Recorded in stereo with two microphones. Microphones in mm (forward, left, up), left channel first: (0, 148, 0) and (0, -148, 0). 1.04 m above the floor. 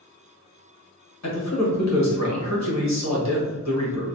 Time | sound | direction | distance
1.2 | a man speaking | 65° left (ahead or behind) | 1.0 m